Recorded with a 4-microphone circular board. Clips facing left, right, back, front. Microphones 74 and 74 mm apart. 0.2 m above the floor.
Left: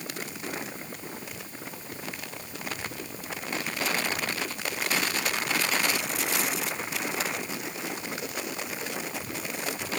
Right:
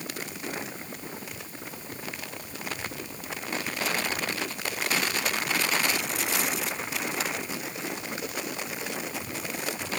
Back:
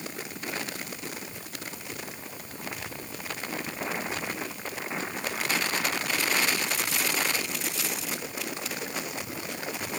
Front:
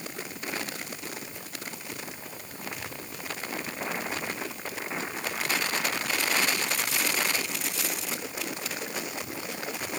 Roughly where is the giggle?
I don't hear a giggle.